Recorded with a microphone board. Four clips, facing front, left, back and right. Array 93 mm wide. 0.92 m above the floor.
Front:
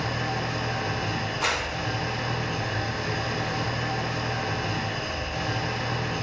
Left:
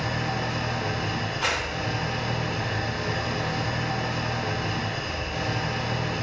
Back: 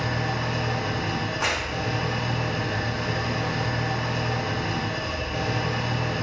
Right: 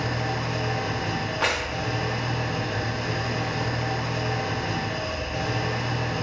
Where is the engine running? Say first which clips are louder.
Even, back 1 dB; 160° right, 1.8 m.